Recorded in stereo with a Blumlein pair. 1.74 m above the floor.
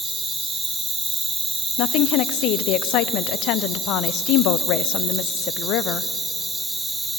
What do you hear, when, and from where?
0.0 s an insect: 10° right, 0.9 m
1.8 s a woman speaking: 40° left, 0.6 m